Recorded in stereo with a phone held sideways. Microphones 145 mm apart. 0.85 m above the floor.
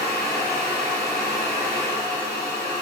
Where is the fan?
20° right (ahead or behind), 1.5 m.